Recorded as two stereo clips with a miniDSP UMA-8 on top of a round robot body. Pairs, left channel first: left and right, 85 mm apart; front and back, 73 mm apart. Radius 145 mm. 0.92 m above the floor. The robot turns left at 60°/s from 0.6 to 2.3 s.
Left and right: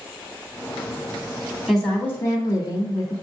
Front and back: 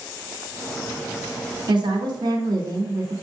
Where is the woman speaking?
Straight behind, 2.5 m; by 3.1 s 145° left, 2.5 m.